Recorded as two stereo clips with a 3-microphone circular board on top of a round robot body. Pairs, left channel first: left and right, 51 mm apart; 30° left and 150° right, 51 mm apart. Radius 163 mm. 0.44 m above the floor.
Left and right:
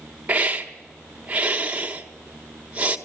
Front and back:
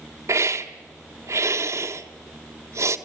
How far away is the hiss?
About 1.6 m.